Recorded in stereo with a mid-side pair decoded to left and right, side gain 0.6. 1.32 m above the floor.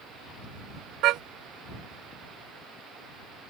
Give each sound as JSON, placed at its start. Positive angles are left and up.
{"t": 1.0, "sound": "a car horn", "azimuth_deg": -65}